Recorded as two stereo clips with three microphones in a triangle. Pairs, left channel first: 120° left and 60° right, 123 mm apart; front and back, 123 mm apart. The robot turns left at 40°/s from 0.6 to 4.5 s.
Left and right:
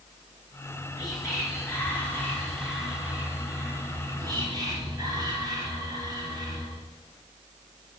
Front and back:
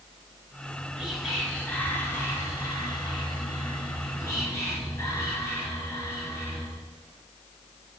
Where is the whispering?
115° left, 1.4 m; by 6.9 s 45° right, 1.4 m.